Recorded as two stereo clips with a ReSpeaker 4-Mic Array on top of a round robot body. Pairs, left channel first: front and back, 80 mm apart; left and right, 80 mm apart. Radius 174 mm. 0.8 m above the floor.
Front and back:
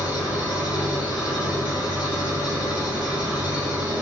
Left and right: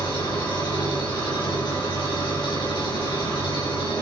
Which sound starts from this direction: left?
An engine running, at 0.0 s.